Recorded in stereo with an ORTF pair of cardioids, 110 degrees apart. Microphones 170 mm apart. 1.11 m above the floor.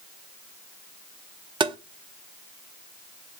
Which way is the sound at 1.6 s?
30° right.